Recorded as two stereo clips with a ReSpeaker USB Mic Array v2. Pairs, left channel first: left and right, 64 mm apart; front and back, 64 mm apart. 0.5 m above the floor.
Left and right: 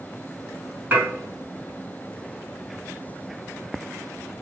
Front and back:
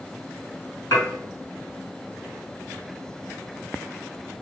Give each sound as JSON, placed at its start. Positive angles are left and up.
{"t": 0.9, "sound": "dishes clattering", "azimuth_deg": -25, "distance_m": 2.0}